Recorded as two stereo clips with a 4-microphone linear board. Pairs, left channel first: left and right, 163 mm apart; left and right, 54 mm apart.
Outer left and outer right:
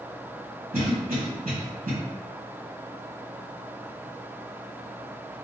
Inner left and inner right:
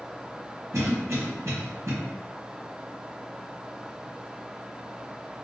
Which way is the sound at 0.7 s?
45° right (ahead or behind).